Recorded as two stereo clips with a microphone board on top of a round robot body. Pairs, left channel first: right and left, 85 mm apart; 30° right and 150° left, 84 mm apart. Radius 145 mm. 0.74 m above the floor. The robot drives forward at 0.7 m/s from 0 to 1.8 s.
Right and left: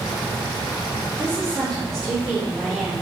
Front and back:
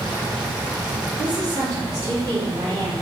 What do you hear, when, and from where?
1.2 s a woman speaking: 175° right, 2.5 m